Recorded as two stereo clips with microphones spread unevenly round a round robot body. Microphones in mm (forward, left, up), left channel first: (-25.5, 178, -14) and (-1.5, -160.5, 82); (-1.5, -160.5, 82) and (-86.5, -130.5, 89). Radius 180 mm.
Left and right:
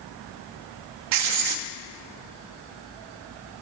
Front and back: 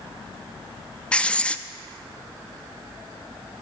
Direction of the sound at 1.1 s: 100° right.